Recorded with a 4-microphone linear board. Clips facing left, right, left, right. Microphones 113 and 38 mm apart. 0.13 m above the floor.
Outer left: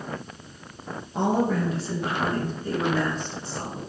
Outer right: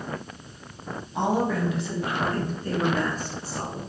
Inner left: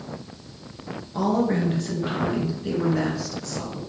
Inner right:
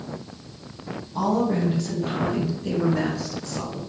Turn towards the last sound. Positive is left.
turn(degrees=-20)  # may be behind; listen again after turning